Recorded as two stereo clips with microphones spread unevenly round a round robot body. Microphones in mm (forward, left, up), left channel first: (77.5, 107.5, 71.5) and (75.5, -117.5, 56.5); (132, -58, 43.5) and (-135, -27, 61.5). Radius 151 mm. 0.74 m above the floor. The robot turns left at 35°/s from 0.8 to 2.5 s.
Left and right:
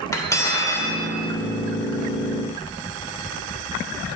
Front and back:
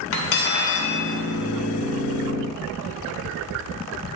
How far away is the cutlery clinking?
About 1.9 m.